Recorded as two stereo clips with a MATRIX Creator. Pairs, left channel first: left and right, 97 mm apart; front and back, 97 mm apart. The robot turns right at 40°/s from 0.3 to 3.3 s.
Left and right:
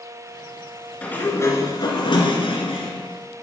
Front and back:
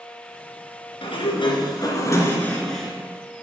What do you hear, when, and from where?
1.0 s a sliding door: 15° left, 1.7 m; by 2.9 s 90° left, 1.7 m